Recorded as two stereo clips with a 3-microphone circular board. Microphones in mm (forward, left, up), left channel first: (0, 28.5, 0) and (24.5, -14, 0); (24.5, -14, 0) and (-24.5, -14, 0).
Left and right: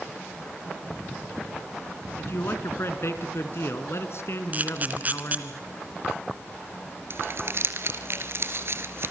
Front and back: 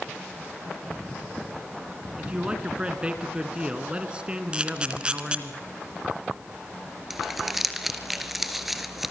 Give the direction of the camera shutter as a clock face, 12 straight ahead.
4 o'clock.